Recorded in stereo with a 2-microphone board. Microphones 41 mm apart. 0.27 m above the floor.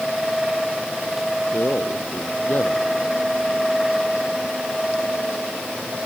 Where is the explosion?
I don't hear an explosion.